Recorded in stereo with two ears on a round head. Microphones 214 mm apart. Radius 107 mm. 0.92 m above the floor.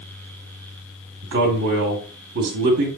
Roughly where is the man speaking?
Right.